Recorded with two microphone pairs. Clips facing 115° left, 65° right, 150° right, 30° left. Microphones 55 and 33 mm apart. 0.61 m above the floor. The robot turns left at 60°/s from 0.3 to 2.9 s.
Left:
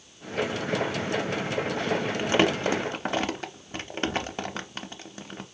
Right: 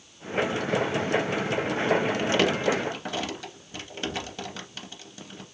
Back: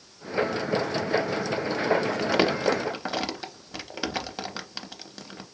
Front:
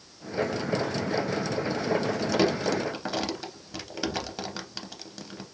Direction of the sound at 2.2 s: Straight behind.